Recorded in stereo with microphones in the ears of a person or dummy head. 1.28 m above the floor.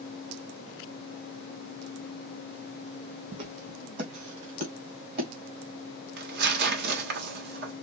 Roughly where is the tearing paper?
Right.